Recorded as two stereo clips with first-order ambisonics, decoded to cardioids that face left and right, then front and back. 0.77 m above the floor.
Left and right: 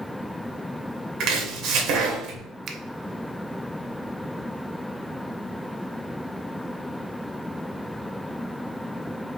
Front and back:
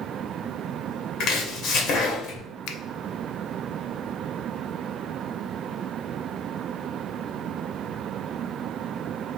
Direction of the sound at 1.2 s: 55° right.